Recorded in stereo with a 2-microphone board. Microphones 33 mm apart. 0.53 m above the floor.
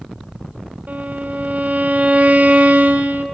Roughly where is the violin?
Right.